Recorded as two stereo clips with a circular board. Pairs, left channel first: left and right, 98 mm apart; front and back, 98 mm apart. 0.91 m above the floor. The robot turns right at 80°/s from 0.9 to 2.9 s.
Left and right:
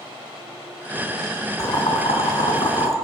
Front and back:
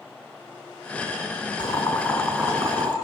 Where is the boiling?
40° left, 3 m; by 3.0 s 145° left, 3 m.